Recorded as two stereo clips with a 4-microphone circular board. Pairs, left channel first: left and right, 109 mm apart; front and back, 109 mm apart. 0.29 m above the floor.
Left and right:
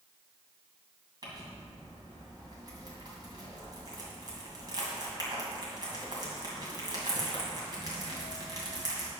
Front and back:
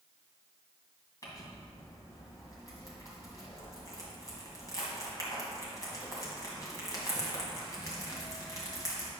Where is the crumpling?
50° right, 2.5 m.